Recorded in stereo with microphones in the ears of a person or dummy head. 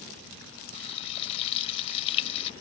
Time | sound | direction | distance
0.7 | frying | 35° left (ahead or behind) | ?